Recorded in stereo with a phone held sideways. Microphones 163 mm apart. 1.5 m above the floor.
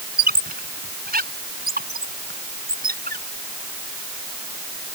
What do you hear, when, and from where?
0.2 s a squeak: 70° right (ahead or behind)